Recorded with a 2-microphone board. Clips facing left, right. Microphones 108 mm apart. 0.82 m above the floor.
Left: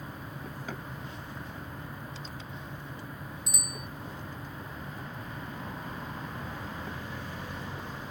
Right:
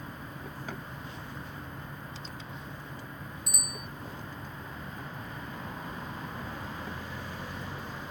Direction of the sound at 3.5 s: 55° right (ahead or behind).